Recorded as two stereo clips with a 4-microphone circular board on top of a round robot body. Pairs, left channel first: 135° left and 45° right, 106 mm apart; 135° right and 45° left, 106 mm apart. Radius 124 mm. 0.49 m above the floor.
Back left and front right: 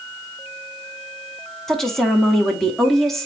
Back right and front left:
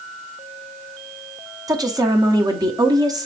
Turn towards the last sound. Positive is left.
turn(degrees=50)